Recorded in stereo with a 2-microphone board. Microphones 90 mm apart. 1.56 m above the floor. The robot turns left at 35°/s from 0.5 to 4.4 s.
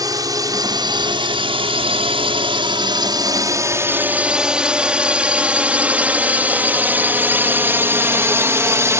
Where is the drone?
45° right (ahead or behind); by 9.0 s 30° right (ahead or behind).